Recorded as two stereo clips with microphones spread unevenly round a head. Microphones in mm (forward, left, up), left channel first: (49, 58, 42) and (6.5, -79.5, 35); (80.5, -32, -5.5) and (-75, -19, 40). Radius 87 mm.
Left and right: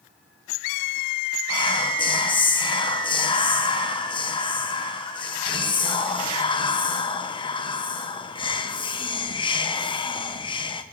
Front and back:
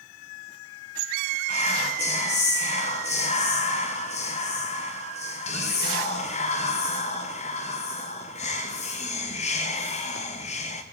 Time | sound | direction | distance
1.5 | whispering | 20° left | 1.0 m